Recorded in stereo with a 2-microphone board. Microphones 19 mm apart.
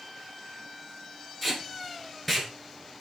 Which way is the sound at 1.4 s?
10° left (ahead or behind).